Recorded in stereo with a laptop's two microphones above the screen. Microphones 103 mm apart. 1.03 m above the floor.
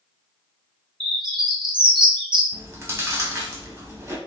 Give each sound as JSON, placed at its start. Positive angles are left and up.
{"t": 1.0, "sound": "a bird", "side_deg": -50, "distance_m": 0.7}
{"t": 2.5, "sound": "chewing", "side_deg": -25, "distance_m": 1.0}